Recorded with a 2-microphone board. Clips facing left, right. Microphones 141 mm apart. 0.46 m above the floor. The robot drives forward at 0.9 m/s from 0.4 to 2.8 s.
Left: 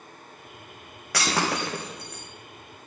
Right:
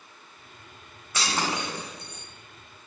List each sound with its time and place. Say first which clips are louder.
1.1 s breaking glass: left 3 dB; 75° left (ahead or behind), 3.5 m; by 2.2 s 65° left (ahead or behind), 4 m